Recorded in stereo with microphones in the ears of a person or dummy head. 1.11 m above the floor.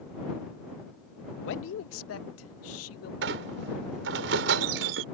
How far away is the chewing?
I don't hear chewing.